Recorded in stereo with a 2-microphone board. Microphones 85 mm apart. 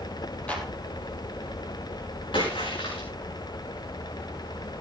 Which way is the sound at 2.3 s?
85° left.